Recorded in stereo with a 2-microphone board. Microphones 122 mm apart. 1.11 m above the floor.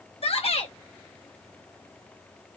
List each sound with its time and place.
0.2 s a shout: 55° left (ahead or behind), 1.4 m